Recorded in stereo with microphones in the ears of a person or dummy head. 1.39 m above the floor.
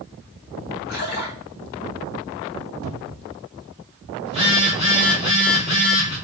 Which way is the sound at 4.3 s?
40° left (ahead or behind).